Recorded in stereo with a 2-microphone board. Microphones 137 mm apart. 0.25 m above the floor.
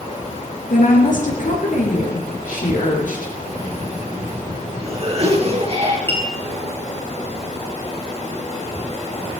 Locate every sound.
0.7 s a woman speaking: 75° left (ahead or behind), 5 m
3.4 s a cough: 45° right (ahead or behind), 4.5 m
6.1 s a clink: 15° left (ahead or behind), 3.5 m